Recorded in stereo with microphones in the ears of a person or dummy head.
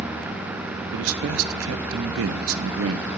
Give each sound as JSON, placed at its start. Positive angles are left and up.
{"t": 0.9, "sound": "a man speaking", "side_deg": -85, "distance_m": 0.6}